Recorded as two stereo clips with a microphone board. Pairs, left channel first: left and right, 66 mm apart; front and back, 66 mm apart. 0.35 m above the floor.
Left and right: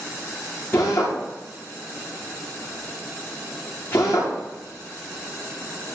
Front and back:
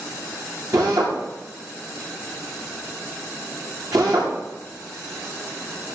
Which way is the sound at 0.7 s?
145° left.